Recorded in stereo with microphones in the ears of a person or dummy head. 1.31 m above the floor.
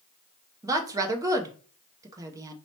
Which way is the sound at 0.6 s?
15° right (ahead or behind).